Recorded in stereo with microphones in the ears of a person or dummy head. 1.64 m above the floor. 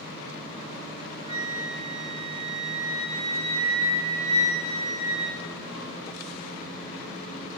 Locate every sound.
1.3 s a flute: 35° right (ahead or behind), 3 m